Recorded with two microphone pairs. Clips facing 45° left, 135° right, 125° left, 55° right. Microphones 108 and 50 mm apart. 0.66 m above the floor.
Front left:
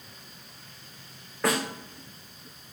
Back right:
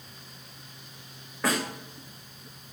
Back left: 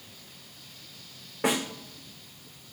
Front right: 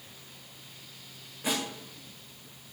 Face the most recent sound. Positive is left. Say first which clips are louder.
# front left 1 dB, back left 5 dB
turn(degrees=135)